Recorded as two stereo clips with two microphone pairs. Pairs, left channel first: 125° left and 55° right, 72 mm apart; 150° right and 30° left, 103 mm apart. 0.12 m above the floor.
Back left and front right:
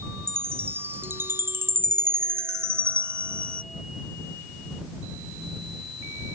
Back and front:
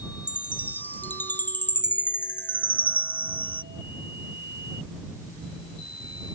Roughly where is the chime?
Right.